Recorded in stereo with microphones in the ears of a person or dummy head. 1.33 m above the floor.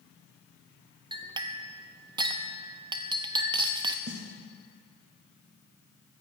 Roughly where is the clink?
Centre.